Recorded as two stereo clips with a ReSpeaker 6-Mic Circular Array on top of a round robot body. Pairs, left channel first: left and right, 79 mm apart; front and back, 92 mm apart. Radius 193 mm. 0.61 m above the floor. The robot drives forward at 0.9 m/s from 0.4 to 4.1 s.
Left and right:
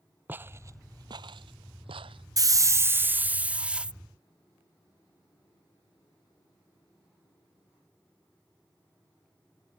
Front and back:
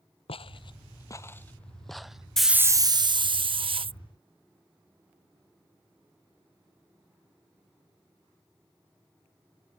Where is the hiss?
85° right; by 4.0 s 170° right.